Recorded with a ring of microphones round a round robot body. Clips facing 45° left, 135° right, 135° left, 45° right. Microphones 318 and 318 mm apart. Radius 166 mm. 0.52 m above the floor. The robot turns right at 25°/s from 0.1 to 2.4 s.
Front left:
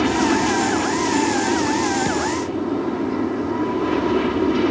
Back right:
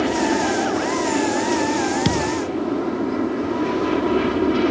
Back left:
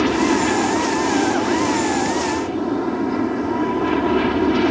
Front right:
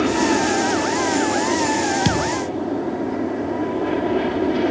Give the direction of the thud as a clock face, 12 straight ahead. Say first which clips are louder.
Back right 1 dB, back left 1 dB; 3 o'clock.